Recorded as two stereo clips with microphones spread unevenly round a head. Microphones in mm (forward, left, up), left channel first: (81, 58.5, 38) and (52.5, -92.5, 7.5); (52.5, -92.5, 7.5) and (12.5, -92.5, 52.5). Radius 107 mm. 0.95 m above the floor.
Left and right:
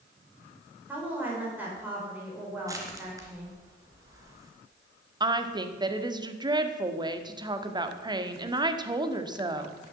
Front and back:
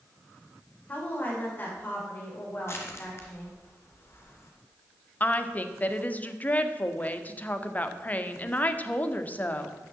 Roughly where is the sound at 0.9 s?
Ahead right.